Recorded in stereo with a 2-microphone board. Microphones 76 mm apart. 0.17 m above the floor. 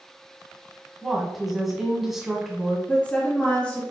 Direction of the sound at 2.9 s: 20° left (ahead or behind).